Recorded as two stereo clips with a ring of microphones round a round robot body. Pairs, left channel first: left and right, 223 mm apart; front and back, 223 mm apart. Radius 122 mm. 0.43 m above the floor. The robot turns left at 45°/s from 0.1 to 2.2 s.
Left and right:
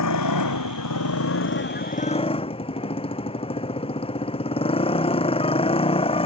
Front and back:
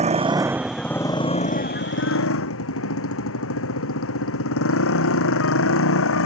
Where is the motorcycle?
120° left; by 6.3 s 25° left.